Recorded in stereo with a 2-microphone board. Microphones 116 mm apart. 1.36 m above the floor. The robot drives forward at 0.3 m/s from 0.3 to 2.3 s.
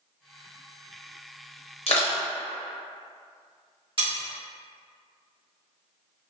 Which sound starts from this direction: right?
Cutlery clinking, at 4.0 s.